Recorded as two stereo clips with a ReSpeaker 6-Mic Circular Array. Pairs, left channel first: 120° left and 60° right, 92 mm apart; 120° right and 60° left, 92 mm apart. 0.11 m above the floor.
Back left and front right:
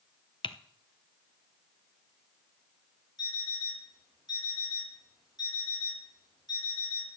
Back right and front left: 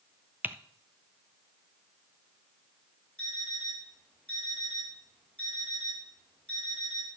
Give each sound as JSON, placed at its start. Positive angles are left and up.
{"t": 0.4, "sound": "typing on a keyboard", "azimuth_deg": 130, "distance_m": 0.7}
{"t": 3.2, "sound": "an alarm clock", "azimuth_deg": 160, "distance_m": 5.0}